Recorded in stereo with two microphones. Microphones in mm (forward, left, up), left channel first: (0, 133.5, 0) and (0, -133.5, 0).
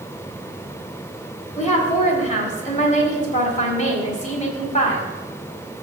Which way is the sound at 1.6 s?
30° left (ahead or behind).